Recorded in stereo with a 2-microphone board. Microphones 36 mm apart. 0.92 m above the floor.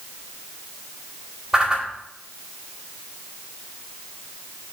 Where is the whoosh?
20° right (ahead or behind), 2.0 m.